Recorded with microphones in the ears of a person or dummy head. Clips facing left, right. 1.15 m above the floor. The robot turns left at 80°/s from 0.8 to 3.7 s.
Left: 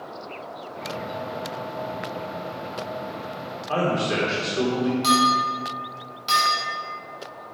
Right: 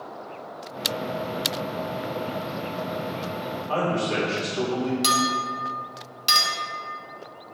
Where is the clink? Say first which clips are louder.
Left 4 dB; 40° right (ahead or behind), 0.9 m.